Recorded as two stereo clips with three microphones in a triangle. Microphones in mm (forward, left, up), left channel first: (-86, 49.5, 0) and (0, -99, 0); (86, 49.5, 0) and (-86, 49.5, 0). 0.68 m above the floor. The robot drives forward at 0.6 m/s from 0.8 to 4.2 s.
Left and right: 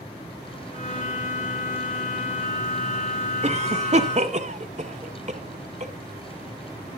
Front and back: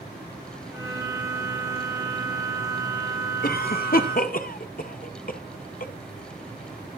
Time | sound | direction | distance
3.4 | a cough | 15° right | 1.9 m